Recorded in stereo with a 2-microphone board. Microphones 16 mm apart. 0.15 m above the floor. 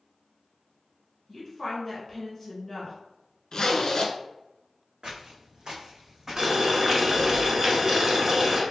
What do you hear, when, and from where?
1.3 s a woman speaking: 5° left (ahead or behind), 1.3 m
3.5 s a zipper: 55° left (ahead or behind), 0.5 m
5.0 s footsteps: 75° right (ahead or behind), 0.8 m; by 7.1 s 10° left (ahead or behind), 1.0 m
6.4 s boiling: 45° right (ahead or behind), 0.9 m